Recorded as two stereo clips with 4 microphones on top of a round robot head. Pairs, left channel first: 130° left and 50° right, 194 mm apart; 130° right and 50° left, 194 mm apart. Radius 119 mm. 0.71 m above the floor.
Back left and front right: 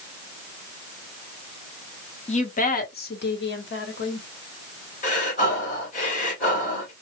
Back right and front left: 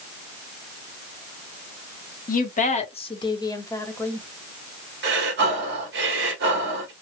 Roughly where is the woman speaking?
Behind.